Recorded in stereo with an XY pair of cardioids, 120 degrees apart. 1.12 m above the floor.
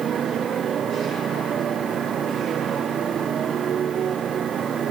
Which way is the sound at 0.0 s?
45° right.